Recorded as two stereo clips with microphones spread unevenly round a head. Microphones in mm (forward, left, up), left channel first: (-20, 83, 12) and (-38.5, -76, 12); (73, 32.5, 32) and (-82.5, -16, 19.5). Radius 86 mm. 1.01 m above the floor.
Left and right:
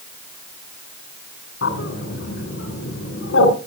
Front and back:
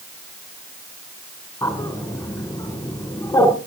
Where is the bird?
95° left, 3 m.